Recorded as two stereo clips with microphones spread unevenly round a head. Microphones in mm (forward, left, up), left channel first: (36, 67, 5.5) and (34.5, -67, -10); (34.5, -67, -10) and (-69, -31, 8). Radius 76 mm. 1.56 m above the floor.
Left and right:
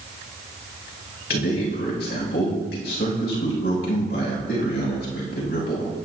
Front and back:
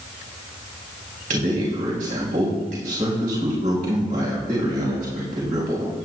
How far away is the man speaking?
About 4 m.